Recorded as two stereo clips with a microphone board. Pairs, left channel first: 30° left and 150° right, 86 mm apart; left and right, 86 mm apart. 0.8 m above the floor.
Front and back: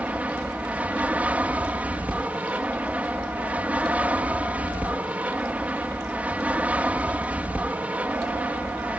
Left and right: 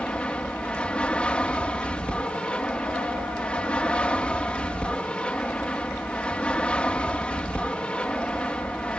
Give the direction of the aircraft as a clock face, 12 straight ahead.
7 o'clock.